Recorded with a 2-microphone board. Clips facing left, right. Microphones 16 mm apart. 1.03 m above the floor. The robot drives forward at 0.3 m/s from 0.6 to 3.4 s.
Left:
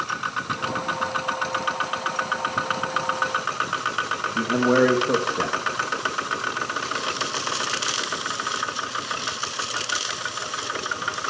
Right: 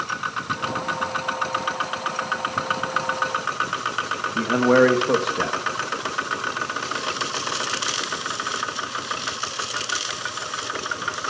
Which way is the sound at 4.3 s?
35° right (ahead or behind).